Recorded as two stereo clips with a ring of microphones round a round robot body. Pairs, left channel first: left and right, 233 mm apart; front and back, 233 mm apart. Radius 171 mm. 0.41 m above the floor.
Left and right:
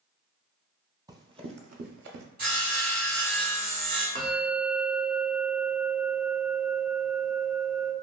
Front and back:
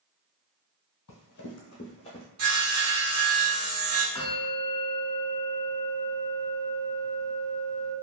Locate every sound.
1.1 s running footsteps: 15° right, 0.8 m; by 2.2 s 80° right, 0.5 m
2.4 s sawing: 155° right, 1.1 m
4.2 s a bell: 60° right, 0.8 m